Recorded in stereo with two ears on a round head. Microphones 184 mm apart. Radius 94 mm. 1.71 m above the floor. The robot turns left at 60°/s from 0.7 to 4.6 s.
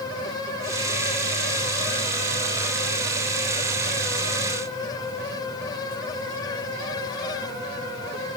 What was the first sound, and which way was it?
Only background noise.